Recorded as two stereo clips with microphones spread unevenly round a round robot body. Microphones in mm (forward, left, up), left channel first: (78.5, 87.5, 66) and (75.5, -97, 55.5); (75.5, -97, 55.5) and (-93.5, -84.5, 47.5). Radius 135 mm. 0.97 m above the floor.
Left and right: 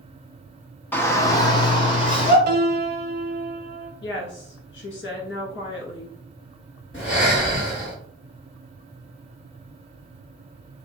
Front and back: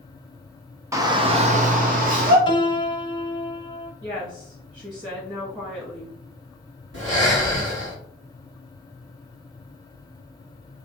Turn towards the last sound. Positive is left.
turn(degrees=160)